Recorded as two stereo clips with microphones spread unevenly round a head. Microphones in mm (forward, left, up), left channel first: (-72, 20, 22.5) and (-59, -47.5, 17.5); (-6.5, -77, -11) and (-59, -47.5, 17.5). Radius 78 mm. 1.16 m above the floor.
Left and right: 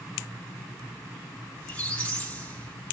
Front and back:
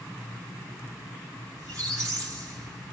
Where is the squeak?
170° left, 4 m.